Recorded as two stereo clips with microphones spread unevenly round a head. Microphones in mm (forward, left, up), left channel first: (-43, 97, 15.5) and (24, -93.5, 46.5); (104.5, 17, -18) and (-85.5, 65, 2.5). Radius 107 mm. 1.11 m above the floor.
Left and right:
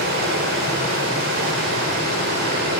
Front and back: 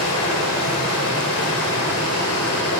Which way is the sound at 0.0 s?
40° right.